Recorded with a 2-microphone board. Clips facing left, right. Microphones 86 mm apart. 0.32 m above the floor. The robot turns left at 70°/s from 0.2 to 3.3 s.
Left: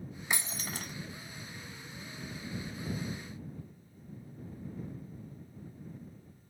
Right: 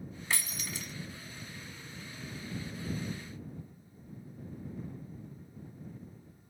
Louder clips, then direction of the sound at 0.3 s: Left 1 dB; 160° left.